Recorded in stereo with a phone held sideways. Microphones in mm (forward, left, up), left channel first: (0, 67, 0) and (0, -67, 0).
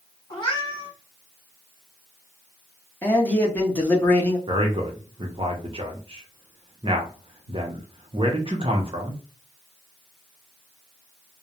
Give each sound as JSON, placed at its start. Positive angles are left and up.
{"t": 0.3, "sound": "a cat meowing", "side_deg": 35, "distance_m": 1.1}
{"t": 3.0, "sound": "a man speaking", "side_deg": 10, "distance_m": 1.1}
{"t": 4.5, "sound": "a man speaking", "side_deg": -40, "distance_m": 0.7}